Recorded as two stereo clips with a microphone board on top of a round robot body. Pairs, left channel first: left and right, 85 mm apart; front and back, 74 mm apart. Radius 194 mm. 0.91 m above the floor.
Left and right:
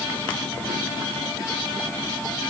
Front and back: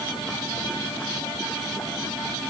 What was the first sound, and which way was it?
Only background noise.